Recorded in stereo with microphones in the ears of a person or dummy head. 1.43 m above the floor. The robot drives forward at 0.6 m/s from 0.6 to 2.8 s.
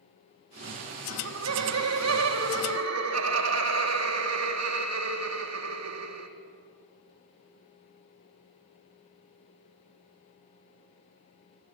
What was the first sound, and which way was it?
Laughter, 85° right.